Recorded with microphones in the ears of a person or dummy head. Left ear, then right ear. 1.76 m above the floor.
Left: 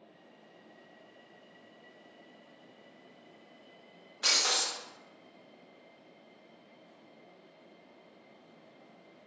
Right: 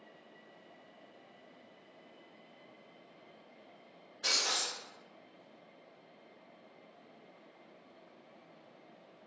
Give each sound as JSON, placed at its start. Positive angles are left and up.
{"t": 4.2, "sound": "breaking glass", "side_deg": 25, "distance_m": 0.8}